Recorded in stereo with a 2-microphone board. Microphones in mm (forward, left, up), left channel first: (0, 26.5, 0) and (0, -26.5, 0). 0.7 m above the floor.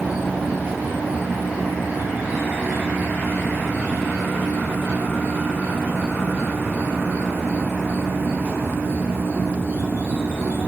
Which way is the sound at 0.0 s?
35° right (ahead or behind).